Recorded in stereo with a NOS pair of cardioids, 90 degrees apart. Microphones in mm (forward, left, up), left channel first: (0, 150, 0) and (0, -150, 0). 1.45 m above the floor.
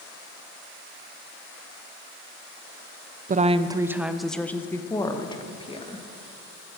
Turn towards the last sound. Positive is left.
turn(degrees=20)